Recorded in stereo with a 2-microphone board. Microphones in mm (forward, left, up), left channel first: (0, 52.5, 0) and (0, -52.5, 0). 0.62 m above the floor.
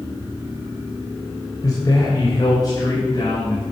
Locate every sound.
1.6 s a man speaking: 35° left (ahead or behind), 2.5 m; by 3.6 s 40° left (ahead or behind), 5 m